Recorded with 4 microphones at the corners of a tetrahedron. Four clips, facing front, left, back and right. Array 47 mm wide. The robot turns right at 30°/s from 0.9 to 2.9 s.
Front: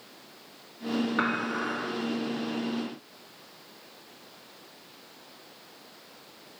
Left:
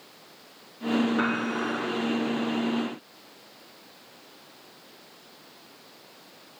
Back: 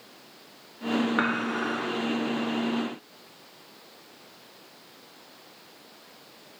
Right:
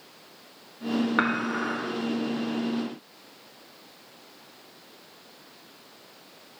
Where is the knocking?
I don't hear knocking.